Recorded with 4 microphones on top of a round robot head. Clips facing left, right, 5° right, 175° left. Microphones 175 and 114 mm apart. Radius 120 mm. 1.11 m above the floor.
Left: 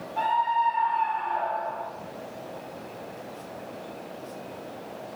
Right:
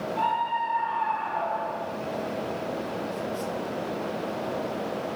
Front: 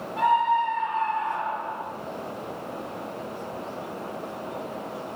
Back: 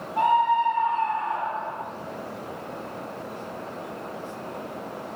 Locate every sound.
0.2 s a scream: 135° left, 6.5 m; by 1.8 s 140° left, 7 m